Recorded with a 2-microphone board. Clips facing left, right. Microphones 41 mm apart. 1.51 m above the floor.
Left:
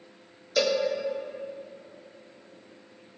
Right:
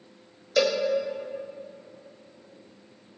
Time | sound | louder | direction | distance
0.6 | a cowbell | right 1 dB | 15° right (ahead or behind) | 0.9 m